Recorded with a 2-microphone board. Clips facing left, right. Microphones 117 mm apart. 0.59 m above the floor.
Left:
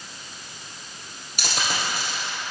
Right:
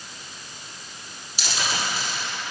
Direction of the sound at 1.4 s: 55° left (ahead or behind).